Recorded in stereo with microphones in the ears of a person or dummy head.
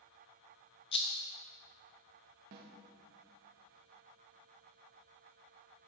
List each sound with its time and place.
0.9 s a rattle: 30° left (ahead or behind), 0.5 m
2.5 s a snare drum: 50° right (ahead or behind), 0.8 m